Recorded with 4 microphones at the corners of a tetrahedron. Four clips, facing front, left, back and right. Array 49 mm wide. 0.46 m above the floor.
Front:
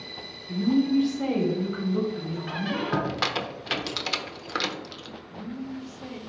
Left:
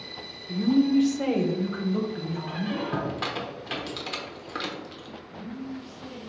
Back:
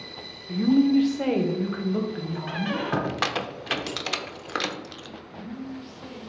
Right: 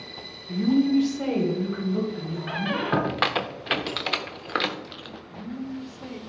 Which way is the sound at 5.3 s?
60° right.